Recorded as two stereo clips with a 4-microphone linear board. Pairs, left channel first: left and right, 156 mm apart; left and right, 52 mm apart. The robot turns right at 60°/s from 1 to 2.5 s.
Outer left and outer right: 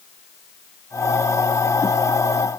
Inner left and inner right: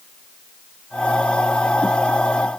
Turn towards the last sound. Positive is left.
No sound to turn to.